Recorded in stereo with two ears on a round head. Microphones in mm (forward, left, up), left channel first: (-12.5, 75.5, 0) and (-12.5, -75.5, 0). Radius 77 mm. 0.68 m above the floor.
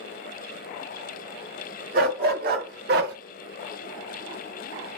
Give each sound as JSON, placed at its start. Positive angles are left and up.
{"t": 1.9, "sound": "a dog barking", "side_deg": -60, "distance_m": 1.2}